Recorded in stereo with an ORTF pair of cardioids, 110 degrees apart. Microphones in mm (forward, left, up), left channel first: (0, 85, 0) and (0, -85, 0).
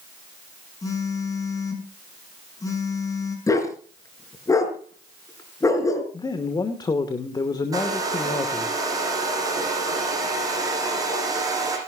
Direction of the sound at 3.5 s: 20° left.